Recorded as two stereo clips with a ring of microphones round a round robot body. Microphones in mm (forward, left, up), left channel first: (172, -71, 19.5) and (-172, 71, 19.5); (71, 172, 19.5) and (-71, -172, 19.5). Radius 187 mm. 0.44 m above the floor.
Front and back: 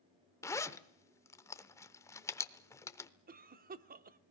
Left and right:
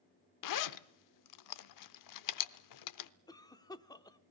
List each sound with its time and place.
0.4 s a zipper: 60° left, 0.8 m
3.3 s a cough: 135° left, 0.7 m